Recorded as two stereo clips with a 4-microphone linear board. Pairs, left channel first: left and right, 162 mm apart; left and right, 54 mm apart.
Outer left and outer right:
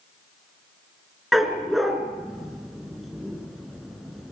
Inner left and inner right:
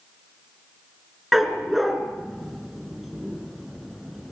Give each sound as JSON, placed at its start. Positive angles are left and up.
{"t": 1.3, "sound": "a dog barking", "side_deg": 0, "distance_m": 3.0}